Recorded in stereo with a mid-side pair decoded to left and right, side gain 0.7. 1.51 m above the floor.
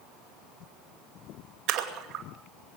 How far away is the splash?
About 2.5 m.